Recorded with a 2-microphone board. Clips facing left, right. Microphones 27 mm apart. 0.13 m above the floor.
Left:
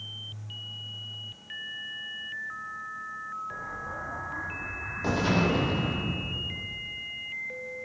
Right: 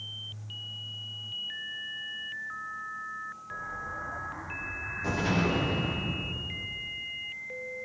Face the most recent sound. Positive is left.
turn(degrees=35)  # may be behind; listen again after turning